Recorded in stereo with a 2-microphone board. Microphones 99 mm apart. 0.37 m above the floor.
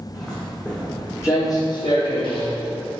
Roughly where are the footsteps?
Centre.